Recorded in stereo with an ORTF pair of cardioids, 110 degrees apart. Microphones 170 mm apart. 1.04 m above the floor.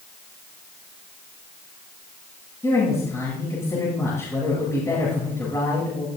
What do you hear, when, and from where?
2.6 s a woman speaking: 15° left, 9 m